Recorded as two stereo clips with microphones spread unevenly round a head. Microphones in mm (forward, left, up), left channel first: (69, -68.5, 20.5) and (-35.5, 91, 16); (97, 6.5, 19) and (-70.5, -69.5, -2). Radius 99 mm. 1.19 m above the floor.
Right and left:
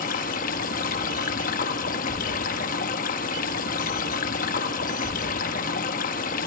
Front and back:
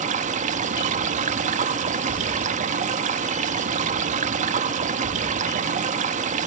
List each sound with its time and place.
0.0 s running water: 105° right, 1.0 m